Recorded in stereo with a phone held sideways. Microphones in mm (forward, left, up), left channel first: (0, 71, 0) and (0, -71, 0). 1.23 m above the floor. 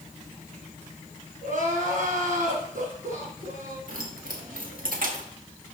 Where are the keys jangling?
80° right, 1.5 m.